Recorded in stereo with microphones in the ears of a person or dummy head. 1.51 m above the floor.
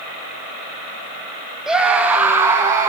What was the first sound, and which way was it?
A scream, 5° right (ahead or behind).